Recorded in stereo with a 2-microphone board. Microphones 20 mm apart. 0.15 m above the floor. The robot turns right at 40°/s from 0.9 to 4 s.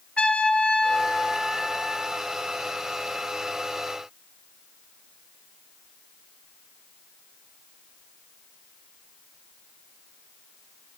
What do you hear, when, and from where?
0.2 s a trumpet: 105° left, 0.9 m; by 2.2 s 160° left, 0.9 m